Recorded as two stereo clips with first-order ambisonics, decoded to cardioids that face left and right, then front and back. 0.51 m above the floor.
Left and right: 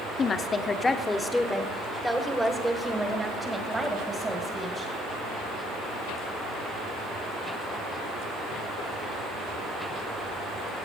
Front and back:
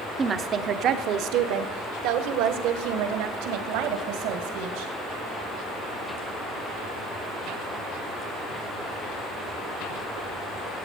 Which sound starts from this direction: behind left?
A woman speaking, at 0.2 s.